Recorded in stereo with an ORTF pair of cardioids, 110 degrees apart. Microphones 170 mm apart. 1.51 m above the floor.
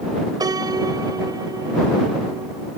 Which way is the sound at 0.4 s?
25° right.